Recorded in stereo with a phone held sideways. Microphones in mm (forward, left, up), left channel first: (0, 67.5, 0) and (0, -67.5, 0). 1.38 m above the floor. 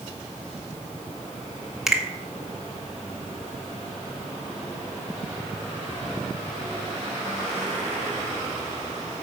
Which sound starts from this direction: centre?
A finger snap, at 1.9 s.